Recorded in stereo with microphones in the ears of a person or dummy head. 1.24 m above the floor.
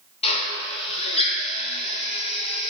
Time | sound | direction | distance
0.2 | a drill | 25° left (ahead or behind) | 0.7 m